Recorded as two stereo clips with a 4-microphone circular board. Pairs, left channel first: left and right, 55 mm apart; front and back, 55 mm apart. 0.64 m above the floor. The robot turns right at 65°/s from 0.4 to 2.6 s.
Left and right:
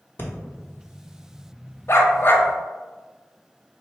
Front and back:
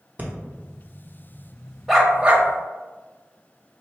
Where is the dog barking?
95° left, 0.5 m; by 2.5 s 135° left, 0.5 m.